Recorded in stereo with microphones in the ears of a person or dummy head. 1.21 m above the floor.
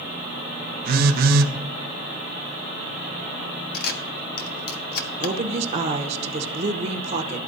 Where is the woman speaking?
40° right (ahead or behind), 0.9 m.